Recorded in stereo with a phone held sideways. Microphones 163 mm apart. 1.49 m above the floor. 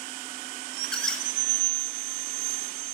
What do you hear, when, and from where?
0.8 s a squeak: 5° left (ahead or behind), 0.5 m